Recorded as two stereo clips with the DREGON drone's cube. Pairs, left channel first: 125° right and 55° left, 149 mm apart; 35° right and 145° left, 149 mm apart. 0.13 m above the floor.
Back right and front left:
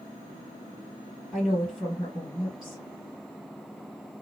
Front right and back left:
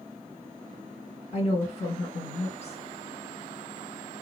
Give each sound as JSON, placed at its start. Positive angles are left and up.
{"t": 1.3, "sound": "a woman speaking", "azimuth_deg": -35, "distance_m": 2.5}